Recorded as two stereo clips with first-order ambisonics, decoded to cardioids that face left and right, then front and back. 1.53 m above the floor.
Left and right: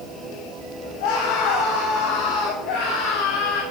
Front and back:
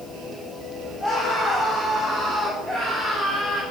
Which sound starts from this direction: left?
A scream, at 1.0 s.